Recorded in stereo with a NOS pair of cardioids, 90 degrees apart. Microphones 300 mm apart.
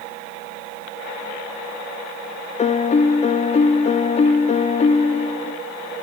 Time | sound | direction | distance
2.6 | a piano | 20° left | 0.6 m